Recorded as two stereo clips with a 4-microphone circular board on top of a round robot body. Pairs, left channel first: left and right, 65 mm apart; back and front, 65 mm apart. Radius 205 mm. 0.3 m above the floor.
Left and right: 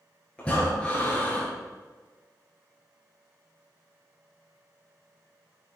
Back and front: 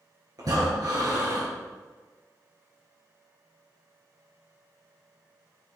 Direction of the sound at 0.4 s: 15° left.